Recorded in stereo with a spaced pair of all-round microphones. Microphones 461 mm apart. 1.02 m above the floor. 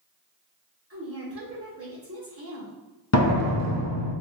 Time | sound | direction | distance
0.9 | a woman speaking | 30° right (ahead or behind) | 1.4 m
3.1 | a door slam | 35° left (ahead or behind) | 0.7 m